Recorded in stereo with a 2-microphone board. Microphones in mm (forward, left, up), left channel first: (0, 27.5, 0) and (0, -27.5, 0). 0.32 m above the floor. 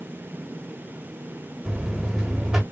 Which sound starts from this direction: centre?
A buzzer, at 1.6 s.